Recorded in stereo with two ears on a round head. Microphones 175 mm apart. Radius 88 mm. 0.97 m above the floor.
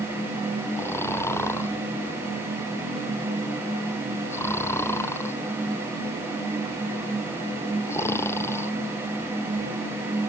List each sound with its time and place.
0.8 s snoring: 15° left (ahead or behind)